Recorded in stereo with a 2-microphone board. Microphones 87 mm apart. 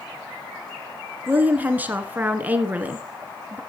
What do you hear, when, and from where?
1.3 s a woman speaking: 20° right (ahead or behind), 1.2 m